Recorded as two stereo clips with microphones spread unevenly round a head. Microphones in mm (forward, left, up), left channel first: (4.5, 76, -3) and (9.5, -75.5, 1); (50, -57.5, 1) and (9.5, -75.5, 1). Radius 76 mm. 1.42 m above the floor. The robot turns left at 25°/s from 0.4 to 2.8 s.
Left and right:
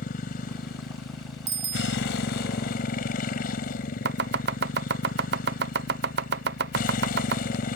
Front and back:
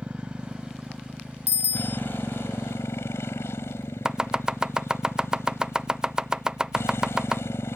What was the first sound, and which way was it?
A motorcycle, 125° left.